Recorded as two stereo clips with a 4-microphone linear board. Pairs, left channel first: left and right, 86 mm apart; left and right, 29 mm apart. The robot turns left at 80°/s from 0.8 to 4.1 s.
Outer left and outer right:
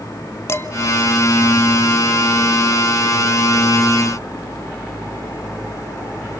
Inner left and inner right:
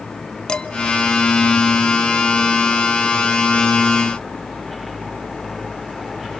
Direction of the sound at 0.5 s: 35° left (ahead or behind).